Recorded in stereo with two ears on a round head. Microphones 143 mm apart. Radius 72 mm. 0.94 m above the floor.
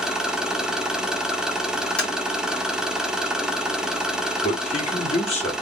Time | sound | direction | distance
0.0 | an engine running | 5° right (ahead or behind) | 1.0 m
2.0 | tapping | 10° left (ahead or behind) | 2.5 m
4.4 | a man speaking | 40° left (ahead or behind) | 2 m